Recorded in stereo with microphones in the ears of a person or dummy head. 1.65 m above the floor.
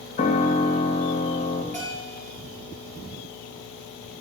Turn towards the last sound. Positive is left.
turn(degrees=10)  # may be behind; listen again after turning